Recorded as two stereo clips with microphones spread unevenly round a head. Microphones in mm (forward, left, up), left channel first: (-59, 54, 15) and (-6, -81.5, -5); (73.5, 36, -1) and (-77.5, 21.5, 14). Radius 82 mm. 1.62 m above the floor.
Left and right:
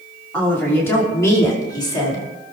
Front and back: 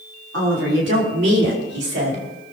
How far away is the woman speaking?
About 5.5 m.